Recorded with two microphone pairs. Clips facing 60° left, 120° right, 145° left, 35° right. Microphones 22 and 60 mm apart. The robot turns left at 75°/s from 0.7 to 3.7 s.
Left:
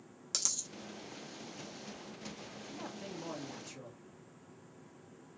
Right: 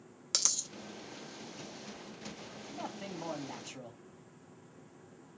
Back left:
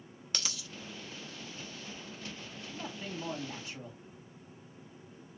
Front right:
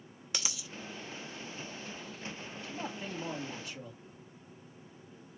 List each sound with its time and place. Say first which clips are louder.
0.3 s a dropped coin: right 4 dB, even; 100° right, 0.9 m
2.7 s a man speaking: right 3 dB, front right 2 dB; 75° right, 2.5 m; by 4.0 s 155° right, 2.5 m